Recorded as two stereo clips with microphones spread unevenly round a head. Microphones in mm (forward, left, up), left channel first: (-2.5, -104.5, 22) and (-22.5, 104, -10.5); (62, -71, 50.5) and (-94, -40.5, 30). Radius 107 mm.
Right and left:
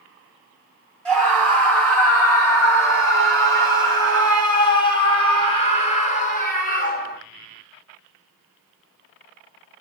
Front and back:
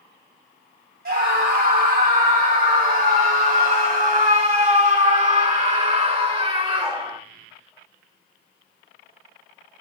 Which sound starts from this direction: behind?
A scream, at 1.1 s.